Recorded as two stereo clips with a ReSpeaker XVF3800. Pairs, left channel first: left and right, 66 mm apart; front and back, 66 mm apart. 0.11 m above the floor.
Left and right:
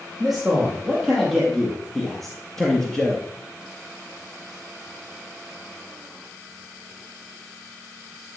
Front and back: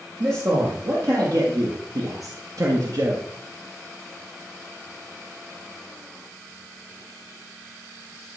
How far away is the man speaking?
About 4 m.